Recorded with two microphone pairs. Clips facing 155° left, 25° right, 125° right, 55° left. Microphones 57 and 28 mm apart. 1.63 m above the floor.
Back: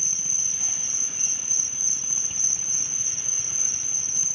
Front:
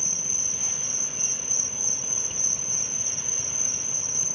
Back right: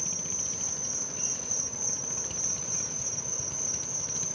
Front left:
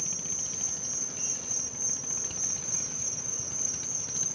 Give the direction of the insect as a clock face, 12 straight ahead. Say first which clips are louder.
Front 3 dB, back right 2 dB; 2 o'clock.